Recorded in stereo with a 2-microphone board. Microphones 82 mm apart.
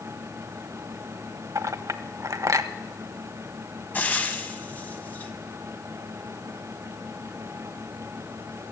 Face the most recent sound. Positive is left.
turn(degrees=20)  # may be behind; listen again after turning